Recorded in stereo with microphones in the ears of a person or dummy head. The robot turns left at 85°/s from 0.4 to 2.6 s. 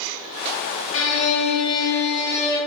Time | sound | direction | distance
0.9 | a violin | 95° left | 0.7 m